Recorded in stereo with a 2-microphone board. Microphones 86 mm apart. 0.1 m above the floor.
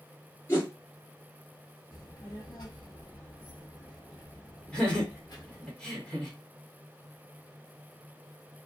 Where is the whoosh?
25° left (ahead or behind), 2 m.